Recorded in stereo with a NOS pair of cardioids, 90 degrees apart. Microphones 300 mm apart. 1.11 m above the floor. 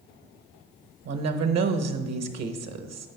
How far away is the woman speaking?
About 1.1 m.